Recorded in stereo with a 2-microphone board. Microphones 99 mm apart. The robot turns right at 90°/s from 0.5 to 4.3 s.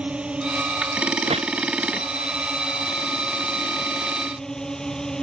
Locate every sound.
0.0 s a drone: 170° right; by 5.2 s 175° left
1.3 s a gunshot: 80° right